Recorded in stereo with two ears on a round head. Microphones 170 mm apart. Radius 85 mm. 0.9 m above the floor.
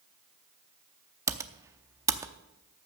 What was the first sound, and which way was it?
Typing on a keyboard, 15° right (ahead or behind).